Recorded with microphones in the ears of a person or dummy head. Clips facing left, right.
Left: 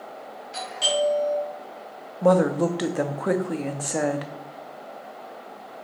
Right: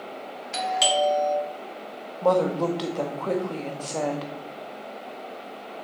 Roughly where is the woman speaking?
Centre.